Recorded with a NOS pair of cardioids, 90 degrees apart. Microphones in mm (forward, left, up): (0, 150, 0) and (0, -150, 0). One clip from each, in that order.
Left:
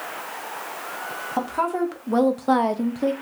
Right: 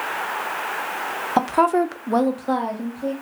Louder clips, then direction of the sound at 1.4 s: Right 6 dB; 45° right.